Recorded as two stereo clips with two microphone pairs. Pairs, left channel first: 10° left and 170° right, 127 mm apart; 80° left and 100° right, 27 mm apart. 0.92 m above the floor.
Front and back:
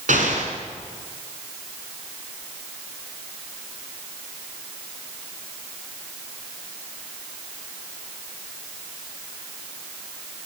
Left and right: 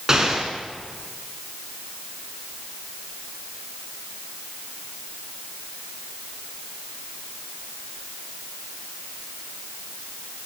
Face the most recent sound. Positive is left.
turn(degrees=-175)